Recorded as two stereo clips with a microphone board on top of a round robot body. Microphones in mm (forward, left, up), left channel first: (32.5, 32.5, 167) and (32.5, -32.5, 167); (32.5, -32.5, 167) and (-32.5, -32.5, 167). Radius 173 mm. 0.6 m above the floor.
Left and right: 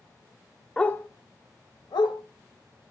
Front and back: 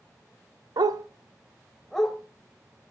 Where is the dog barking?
170° left, 0.6 m; by 2.2 s 80° left, 1.8 m.